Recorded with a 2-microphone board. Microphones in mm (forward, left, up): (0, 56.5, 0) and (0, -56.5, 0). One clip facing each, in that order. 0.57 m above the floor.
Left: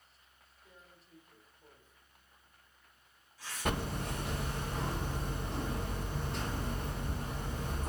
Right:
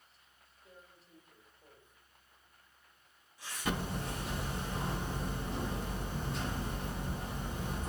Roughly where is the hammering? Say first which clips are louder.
Left 1 dB; left.